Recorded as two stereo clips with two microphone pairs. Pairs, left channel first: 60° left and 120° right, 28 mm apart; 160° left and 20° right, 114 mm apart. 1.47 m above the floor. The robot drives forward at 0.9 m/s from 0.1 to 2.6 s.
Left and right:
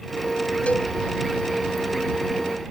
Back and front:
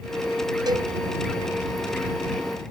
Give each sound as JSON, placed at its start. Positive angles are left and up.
{"t": 0.7, "sound": "a cowbell", "azimuth_deg": 35}